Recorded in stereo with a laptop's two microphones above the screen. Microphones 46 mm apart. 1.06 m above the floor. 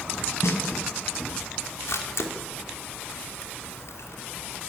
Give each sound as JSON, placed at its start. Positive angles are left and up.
{"t": 0.4, "sound": "a snare drum", "side_deg": 85, "distance_m": 5.5}
{"t": 1.9, "sound": "a camera shutter", "side_deg": 80, "distance_m": 3.0}